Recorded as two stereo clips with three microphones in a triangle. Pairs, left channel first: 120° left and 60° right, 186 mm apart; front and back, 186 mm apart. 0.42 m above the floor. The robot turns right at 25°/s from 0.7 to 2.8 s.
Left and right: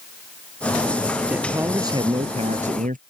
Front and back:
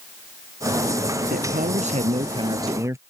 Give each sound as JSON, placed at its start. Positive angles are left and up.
{"t": 1.3, "sound": "a man speaking", "azimuth_deg": -145}